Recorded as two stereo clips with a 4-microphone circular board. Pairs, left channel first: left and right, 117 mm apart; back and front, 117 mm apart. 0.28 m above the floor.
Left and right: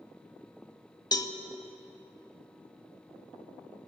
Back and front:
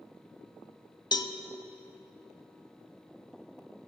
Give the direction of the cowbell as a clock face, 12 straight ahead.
7 o'clock.